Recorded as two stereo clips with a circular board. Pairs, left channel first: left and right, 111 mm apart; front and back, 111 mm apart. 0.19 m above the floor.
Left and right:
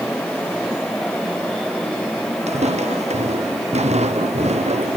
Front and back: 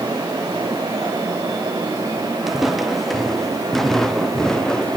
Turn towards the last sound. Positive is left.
turn(degrees=-80)